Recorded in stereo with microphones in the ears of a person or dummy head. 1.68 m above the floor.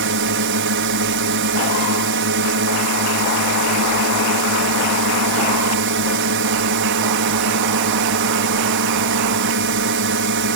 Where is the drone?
65° right (ahead or behind).